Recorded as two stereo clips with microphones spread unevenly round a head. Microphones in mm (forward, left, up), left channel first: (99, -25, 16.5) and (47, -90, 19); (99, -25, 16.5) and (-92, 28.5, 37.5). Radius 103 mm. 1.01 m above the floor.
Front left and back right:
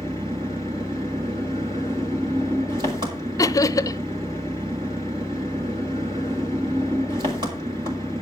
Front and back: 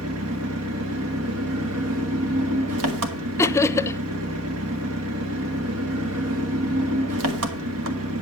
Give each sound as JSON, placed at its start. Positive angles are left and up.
{"t": 0.0, "sound": "an engine running", "azimuth_deg": 175, "distance_m": 1.7}
{"t": 3.4, "sound": "laughter", "azimuth_deg": 50, "distance_m": 0.6}